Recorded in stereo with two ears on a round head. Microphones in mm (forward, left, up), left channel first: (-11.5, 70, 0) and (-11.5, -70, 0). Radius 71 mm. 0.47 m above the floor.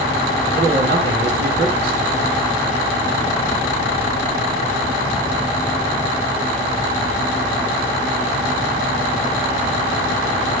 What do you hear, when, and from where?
0.5 s a man speaking: 80° right, 5.5 m